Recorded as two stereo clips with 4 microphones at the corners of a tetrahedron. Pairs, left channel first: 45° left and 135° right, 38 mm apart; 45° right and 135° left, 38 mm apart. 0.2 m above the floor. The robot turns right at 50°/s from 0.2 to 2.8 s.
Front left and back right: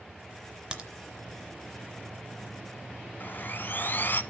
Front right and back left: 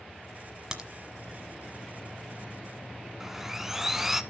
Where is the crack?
175° right, 1.0 m; by 0.9 s 165° right, 1.0 m.